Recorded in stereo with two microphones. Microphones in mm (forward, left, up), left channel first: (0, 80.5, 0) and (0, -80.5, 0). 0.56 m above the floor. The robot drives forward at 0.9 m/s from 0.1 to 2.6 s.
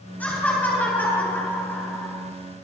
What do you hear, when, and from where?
0.2 s laughter: 10° left (ahead or behind), 7.5 m